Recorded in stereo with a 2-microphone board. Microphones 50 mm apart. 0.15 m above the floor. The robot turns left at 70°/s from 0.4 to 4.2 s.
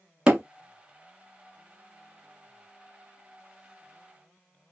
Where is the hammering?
20° right (ahead or behind), 0.8 m.